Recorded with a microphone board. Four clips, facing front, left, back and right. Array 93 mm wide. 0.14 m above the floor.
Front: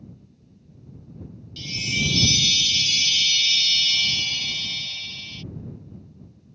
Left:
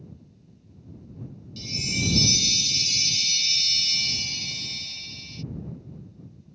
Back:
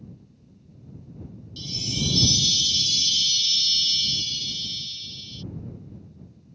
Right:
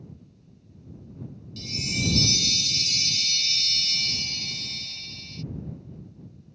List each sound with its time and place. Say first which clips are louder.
1.6 s a chime: even, front 2 dB; 5° left